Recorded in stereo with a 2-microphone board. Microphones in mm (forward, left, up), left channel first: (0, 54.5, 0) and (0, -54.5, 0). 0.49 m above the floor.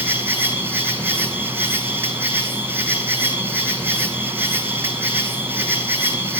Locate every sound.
0.0 s an insect: 20° right (ahead or behind), 2.5 m